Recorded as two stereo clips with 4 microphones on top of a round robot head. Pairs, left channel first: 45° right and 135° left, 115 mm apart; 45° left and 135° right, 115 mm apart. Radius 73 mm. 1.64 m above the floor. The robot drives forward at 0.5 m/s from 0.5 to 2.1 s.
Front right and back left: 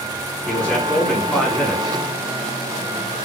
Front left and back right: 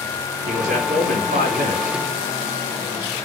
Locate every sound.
0.5 s a man speaking: 125° right, 3.5 m; by 2.0 s 135° right, 3.5 m